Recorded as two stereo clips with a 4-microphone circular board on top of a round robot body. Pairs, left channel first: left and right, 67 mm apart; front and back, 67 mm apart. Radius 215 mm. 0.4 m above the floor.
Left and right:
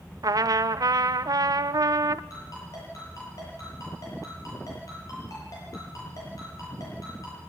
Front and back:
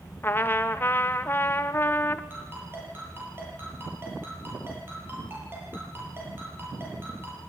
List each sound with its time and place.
0.2 s a trumpet: 55° right, 0.6 m
2.3 s a ringtone: 125° left, 9 m